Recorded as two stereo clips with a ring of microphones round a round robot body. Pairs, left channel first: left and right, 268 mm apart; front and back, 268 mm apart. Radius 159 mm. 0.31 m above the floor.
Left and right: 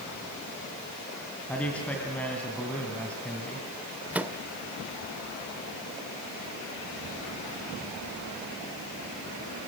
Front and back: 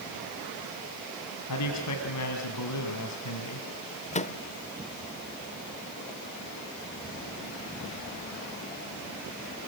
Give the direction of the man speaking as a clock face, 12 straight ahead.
12 o'clock.